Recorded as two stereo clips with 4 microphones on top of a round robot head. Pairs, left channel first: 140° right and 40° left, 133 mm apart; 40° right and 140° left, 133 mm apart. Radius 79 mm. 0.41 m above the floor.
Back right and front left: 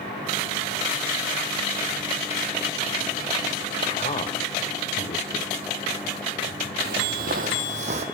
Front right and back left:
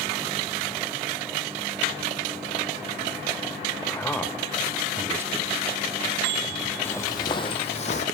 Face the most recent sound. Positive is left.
turn(degrees=0)